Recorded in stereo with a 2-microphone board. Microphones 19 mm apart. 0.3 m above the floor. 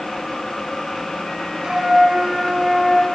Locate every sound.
1.6 s a flute: 50° right (ahead or behind), 1.0 m